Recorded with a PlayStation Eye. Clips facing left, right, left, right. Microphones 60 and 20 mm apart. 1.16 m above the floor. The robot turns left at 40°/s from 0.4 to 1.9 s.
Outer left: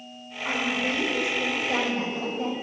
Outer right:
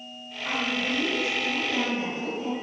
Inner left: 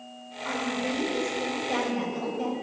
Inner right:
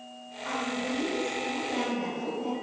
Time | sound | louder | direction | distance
0.5 | a woman speaking | outer left 1 dB, inner left 2 dB | 155° left | 6 m